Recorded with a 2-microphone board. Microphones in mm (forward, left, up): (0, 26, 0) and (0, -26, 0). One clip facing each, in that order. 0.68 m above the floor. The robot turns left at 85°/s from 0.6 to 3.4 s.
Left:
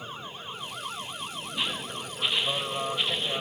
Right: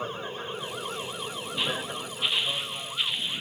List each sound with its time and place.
0.0 s an aircraft: 50° right (ahead or behind); by 3.4 s 70° left (ahead or behind)